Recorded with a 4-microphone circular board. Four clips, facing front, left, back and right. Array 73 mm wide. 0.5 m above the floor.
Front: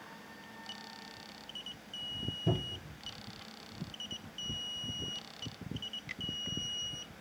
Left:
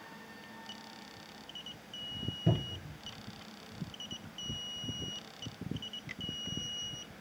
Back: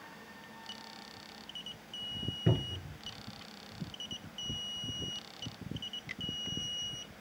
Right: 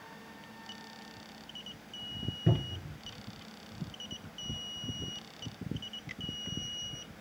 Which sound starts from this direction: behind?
A cupboard door, at 2.5 s.